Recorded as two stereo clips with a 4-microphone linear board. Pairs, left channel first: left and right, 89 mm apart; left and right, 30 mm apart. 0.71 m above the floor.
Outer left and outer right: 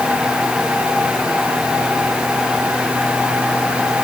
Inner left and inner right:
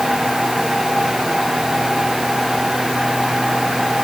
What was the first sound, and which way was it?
Only background noise.